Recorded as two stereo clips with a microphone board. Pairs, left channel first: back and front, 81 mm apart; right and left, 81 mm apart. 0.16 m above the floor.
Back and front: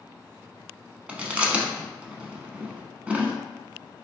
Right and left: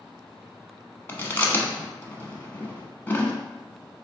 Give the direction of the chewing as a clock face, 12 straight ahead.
2 o'clock.